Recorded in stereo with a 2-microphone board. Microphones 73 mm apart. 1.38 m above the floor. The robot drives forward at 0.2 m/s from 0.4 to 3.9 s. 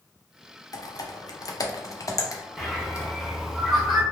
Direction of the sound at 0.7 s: 50° left (ahead or behind).